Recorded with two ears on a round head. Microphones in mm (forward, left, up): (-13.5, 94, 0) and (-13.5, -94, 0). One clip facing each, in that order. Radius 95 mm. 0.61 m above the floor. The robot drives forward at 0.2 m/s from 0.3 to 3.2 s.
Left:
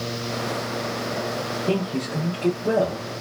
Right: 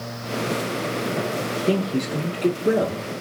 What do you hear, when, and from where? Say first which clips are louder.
1.7 s a man speaking: right 3 dB; 20° right (ahead or behind), 0.7 m